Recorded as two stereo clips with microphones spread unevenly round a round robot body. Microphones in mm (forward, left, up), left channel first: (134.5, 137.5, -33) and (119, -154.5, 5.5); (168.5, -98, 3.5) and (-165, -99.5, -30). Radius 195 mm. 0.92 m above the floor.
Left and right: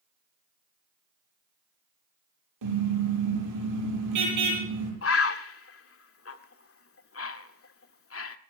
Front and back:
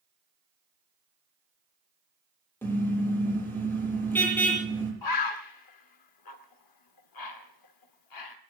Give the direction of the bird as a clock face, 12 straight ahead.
11 o'clock.